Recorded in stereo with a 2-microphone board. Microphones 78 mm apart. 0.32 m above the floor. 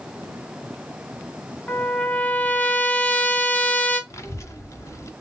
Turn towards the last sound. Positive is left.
turn(degrees=40)  # may be behind; listen again after turning